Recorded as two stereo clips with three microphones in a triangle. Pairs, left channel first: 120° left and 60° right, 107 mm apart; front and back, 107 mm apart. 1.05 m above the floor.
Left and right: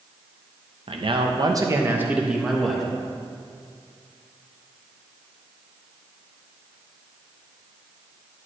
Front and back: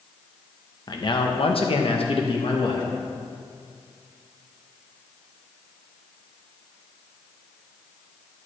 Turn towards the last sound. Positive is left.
turn(degrees=35)